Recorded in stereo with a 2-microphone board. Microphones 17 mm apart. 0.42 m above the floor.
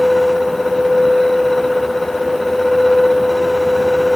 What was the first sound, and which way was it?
Only background noise.